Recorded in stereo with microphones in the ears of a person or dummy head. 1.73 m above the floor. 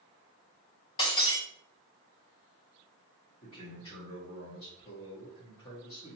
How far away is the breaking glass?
About 1.2 m.